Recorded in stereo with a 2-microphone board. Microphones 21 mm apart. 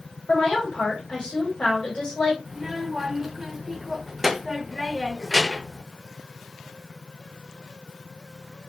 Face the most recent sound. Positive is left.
turn(degrees=-10)  # may be behind; listen again after turning